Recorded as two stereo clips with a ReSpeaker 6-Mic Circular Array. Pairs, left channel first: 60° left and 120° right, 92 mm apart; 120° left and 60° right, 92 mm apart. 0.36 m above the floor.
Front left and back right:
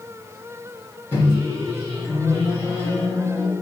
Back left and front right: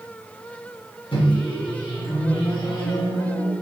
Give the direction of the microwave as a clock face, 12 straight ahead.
8 o'clock.